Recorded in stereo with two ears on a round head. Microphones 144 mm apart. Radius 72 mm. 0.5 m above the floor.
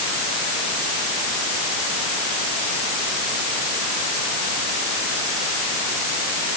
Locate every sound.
Only background noise.